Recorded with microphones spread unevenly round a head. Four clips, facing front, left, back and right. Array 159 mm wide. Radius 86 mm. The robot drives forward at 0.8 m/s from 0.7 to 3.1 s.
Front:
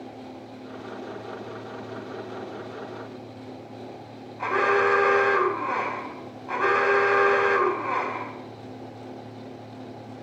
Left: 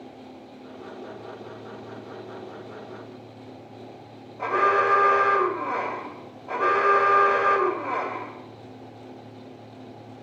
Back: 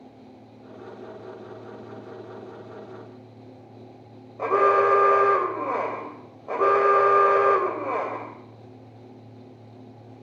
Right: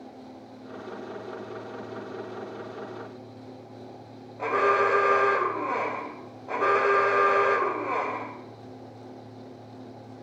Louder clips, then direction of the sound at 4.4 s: Left 1 dB, back 3 dB; straight behind.